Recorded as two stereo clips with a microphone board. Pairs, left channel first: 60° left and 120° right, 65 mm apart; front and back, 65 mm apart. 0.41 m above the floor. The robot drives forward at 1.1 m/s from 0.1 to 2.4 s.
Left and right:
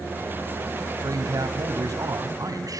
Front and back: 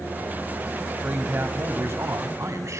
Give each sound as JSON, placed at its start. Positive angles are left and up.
{"t": 1.0, "sound": "a man speaking", "azimuth_deg": -115, "distance_m": 2.5}